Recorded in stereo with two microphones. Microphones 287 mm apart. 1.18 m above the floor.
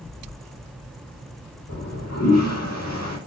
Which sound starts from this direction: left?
A toilet flushing, at 1.7 s.